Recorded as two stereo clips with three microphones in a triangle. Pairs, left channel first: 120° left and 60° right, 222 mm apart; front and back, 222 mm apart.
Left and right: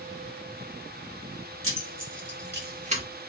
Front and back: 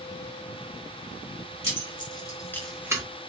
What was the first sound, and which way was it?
Keys jangling, 65° right.